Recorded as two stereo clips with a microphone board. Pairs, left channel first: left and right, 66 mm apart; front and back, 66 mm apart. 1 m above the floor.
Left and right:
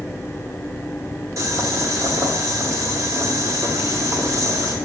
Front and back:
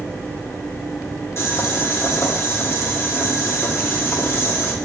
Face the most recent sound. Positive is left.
turn(degrees=-50)